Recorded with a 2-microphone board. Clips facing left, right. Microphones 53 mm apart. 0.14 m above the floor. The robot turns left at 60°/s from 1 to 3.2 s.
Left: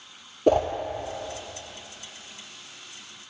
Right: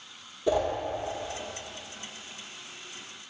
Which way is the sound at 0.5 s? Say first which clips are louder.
Left 5 dB; 55° left (ahead or behind).